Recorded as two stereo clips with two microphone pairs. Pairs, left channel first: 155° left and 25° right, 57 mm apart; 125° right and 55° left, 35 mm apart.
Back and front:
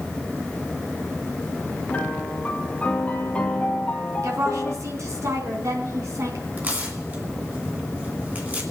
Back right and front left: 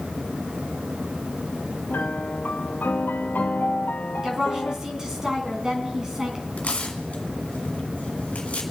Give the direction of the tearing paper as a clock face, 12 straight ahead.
3 o'clock.